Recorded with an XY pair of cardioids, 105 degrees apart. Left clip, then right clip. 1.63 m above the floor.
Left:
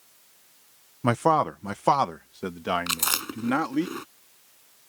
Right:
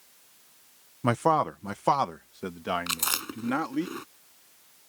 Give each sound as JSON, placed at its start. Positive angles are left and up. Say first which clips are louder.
{"t": 1.0, "sound": "a man speaking", "louder": "left 2 dB", "azimuth_deg": 10}
{"t": 2.9, "sound": "chewing", "louder": "left 3 dB", "azimuth_deg": 15}